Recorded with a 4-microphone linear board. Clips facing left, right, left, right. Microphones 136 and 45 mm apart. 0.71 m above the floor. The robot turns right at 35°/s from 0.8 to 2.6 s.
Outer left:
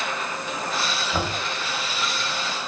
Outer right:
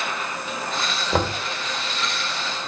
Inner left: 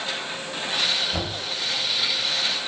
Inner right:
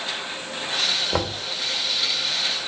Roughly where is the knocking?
Right.